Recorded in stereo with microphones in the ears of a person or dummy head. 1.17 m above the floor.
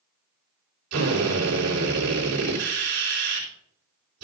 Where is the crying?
I don't hear crying.